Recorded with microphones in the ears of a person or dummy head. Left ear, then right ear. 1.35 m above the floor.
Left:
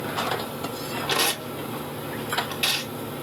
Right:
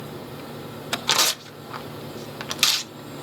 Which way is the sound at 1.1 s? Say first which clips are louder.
Right 3 dB; 55° right (ahead or behind).